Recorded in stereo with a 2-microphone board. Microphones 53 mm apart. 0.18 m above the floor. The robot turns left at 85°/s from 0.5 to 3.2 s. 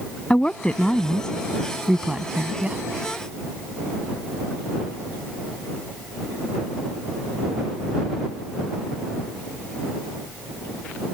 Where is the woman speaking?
20° left (ahead or behind); by 2.8 s 20° right (ahead or behind).